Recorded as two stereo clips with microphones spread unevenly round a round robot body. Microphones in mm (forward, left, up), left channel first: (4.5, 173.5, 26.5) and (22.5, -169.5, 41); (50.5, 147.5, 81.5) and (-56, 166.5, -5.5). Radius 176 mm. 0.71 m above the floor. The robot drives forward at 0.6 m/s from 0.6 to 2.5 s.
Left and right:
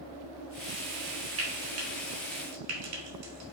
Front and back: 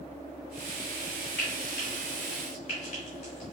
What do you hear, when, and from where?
1.4 s frying: 40° right, 1.3 m; by 3.5 s 75° right, 1.1 m